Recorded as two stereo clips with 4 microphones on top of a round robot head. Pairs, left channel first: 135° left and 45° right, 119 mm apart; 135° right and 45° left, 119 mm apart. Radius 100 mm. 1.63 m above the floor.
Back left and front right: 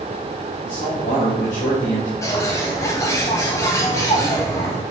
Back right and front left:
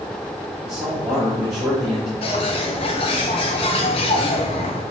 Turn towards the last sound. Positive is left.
turn(degrees=-165)